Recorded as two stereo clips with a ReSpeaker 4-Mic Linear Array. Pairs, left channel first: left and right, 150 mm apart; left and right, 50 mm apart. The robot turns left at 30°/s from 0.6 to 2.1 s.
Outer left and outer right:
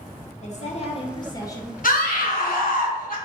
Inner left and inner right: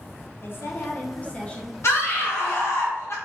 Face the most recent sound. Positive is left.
turn(degrees=70)  # may be behind; listen again after turning